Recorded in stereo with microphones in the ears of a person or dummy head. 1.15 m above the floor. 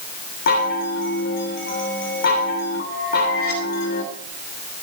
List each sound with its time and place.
0.5 s a chime: 60° left (ahead or behind), 2.5 m